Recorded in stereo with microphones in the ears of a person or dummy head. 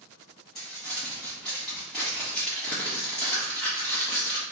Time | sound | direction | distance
0.6 | crumpling | 5° left (ahead or behind) | 1.7 m